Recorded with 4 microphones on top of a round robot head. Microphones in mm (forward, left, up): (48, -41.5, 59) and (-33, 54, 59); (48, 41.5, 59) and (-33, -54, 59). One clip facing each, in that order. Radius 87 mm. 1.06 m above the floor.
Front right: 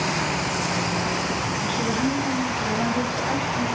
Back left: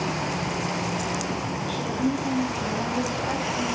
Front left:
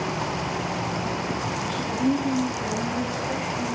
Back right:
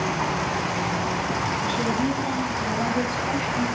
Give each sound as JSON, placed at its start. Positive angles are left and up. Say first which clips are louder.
{"t": 1.6, "sound": "a woman speaking", "louder": "front right 1 dB, front left 1 dB", "azimuth_deg": -150, "distance_m": 8.5}